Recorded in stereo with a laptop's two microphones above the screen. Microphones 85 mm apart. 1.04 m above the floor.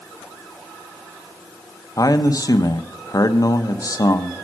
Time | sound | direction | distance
2.0 | a man speaking | 45° left (ahead or behind) | 0.6 m